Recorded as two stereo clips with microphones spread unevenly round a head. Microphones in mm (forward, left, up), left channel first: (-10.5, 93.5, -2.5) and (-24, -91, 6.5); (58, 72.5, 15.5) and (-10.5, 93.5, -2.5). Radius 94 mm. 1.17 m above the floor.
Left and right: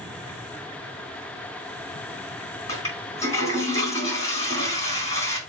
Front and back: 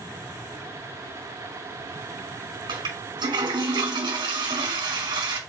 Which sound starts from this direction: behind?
A toilet flushing, at 2.7 s.